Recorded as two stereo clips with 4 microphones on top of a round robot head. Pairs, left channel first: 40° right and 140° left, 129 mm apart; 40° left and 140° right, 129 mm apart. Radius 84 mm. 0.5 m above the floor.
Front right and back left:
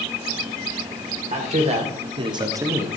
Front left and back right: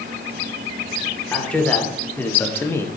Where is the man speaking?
120° left, 2.0 m; by 2.9 s 80° left, 1.0 m.